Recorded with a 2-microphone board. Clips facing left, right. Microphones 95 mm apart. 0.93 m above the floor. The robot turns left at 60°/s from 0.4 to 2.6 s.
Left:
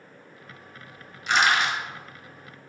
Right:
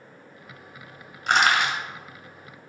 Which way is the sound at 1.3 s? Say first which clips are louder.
Right 1 dB; 50° right (ahead or behind).